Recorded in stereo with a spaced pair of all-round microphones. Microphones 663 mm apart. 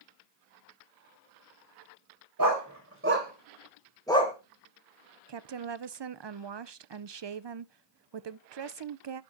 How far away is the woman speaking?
About 0.5 m.